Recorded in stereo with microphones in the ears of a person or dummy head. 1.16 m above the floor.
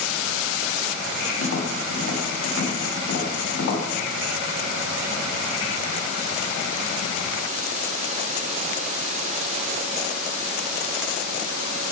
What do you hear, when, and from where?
1.4 s tapping: 75° left (ahead or behind), 2 m